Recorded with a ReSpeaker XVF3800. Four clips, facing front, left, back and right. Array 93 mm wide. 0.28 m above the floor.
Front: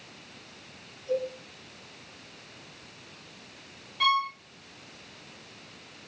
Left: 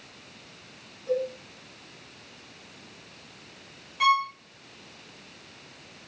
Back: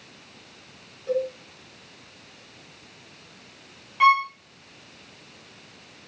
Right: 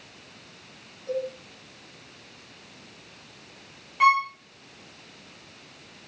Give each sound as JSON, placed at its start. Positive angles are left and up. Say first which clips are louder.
{"t": 1.1, "sound": "a cowbell", "louder": "left 2 dB, back 4 dB", "azimuth_deg": 180, "distance_m": 7.5}
{"t": 4.0, "sound": "a violin", "louder": "right 3 dB, back 7 dB", "azimuth_deg": -145, "distance_m": 1.1}